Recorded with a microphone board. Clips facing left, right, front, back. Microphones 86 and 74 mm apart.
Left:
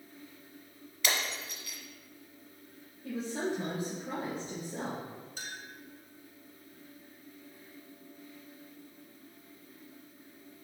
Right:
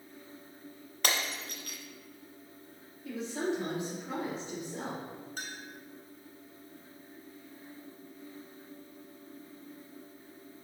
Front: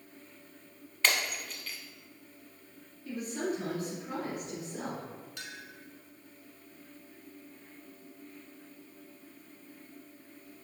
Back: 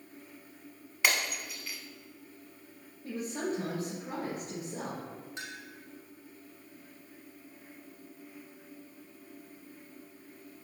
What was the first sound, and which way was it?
Breaking glass, 100° right.